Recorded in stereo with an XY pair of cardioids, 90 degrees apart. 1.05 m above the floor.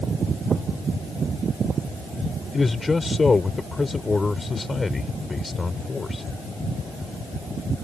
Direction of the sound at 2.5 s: 25° left.